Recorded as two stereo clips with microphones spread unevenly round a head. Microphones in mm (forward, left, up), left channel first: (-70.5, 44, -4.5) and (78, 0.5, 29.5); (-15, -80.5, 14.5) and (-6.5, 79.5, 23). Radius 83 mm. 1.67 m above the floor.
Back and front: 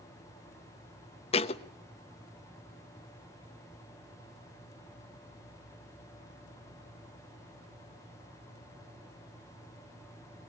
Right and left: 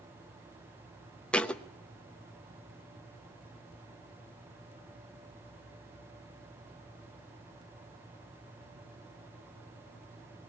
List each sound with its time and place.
1.3 s a thud: 175° right, 0.9 m